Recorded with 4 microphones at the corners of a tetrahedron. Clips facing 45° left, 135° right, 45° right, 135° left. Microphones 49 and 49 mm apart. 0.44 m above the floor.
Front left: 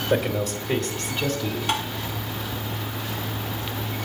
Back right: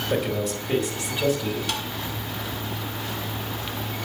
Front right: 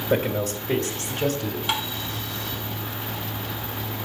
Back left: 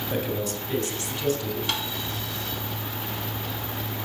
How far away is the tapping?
About 1.3 m.